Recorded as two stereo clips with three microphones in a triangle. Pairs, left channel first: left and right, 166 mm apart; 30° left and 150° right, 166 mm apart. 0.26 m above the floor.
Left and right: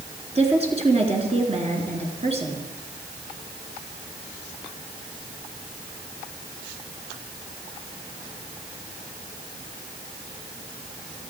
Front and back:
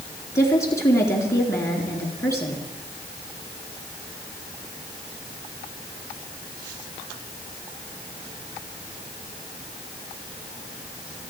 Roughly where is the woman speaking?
Ahead right.